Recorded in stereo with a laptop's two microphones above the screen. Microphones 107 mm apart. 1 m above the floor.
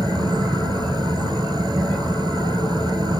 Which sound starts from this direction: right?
A fan, at 0.0 s.